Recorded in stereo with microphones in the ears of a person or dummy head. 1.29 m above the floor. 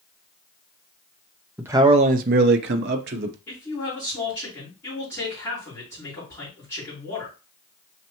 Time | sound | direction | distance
1.6 | a man speaking | 10° right (ahead or behind) | 0.5 m
3.5 | a man speaking | 15° left (ahead or behind) | 4 m